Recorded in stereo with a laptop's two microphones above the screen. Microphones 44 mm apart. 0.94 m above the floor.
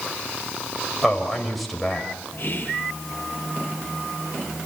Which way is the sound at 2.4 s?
55° left (ahead or behind).